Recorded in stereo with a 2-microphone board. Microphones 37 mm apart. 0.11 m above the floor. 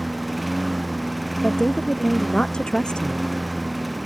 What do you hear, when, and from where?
0.0 s a lawn mower: centre (ahead or behind)
1.4 s a woman speaking: 25° left (ahead or behind)